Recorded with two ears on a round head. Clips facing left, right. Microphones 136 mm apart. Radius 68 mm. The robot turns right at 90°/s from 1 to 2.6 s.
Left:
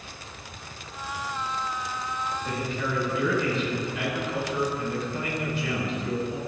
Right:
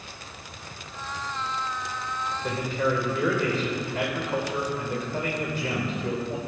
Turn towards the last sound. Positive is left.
turn(degrees=-35)  # may be behind; listen again after turning